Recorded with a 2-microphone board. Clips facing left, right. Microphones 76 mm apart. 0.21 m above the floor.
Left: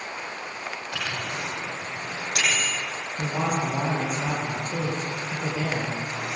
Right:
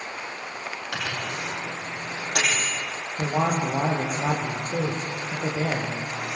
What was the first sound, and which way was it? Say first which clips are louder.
A microwave: right 1 dB; 80° right.